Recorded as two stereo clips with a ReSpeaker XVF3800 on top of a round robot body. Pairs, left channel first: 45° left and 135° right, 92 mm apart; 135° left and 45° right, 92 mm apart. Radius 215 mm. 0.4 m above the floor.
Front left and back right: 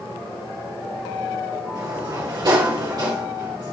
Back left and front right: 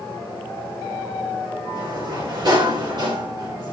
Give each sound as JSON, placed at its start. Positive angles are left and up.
{"t": 1.8, "sound": "a sliding door", "azimuth_deg": -85, "distance_m": 3.0}